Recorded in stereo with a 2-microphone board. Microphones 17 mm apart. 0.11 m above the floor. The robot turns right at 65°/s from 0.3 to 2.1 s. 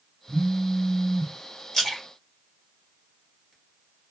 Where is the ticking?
I don't hear ticking.